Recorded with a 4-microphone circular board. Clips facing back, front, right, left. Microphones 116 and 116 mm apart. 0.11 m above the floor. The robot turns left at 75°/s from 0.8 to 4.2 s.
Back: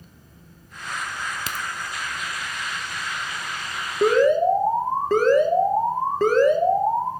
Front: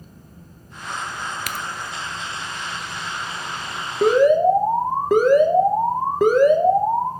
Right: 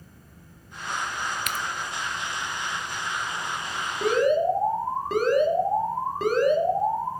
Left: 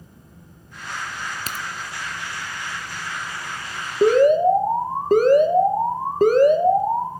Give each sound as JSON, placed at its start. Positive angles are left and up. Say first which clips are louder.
{"t": 1.5, "sound": "a crack", "louder": "front 1 dB, right 1 dB", "azimuth_deg": 130, "distance_m": 0.7}
{"t": 4.0, "sound": "an alarm", "louder": "front 3 dB, left 7 dB", "azimuth_deg": 85, "distance_m": 1.1}